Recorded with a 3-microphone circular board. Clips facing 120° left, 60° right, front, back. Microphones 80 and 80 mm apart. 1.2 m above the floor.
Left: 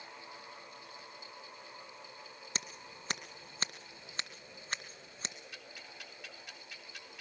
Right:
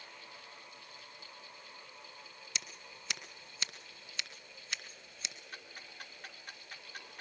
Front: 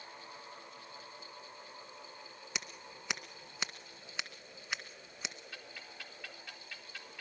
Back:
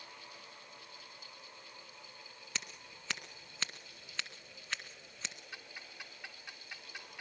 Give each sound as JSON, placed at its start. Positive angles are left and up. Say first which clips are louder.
{"t": 2.5, "sound": "scissors", "louder": "left 3 dB, front 1 dB", "azimuth_deg": 75, "distance_m": 1.9}
{"t": 5.5, "sound": "ticking", "louder": "right 1 dB, front 1 dB", "azimuth_deg": -110, "distance_m": 3.5}